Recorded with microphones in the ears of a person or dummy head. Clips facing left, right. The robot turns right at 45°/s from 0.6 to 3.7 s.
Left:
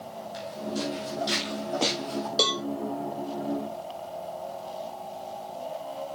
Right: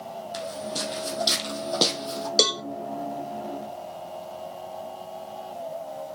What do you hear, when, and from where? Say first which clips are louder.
0.3 s footsteps: left 1 dB; 60° right (ahead or behind), 3 m; by 2.3 s 40° right (ahead or behind), 3.5 m
2.4 s a cowbell: right 3 dB; 30° right (ahead or behind), 0.8 m; by 2.6 s 20° right (ahead or behind), 0.8 m